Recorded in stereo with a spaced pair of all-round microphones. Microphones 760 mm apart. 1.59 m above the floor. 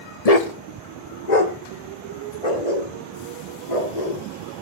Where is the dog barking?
50° left (ahead or behind), 1.5 m; by 4.6 s 60° left (ahead or behind), 7 m.